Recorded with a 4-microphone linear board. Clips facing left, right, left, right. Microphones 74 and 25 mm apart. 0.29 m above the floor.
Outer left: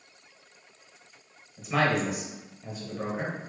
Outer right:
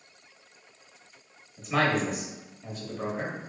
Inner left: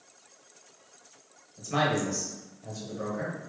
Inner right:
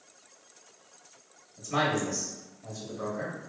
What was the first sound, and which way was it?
A man speaking, 5° left (ahead or behind).